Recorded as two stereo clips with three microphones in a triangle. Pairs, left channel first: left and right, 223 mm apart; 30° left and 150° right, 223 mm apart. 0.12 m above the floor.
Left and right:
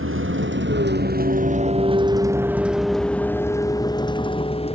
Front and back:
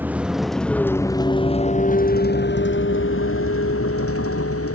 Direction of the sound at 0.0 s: 70° right.